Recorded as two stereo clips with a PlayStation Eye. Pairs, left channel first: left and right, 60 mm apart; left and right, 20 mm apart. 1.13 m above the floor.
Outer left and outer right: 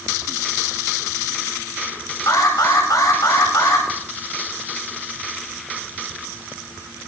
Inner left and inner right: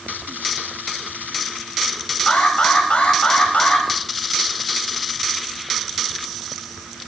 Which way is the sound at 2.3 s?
85° left.